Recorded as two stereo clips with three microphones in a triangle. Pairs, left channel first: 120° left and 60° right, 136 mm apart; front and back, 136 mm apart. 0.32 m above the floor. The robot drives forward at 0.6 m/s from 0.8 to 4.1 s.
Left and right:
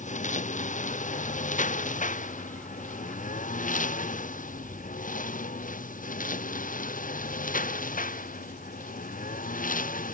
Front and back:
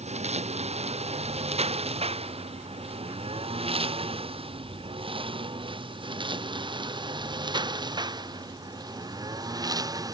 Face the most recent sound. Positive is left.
turn(degrees=115)